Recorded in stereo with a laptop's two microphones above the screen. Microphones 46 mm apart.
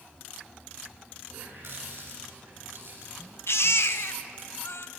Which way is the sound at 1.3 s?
65° right (ahead or behind).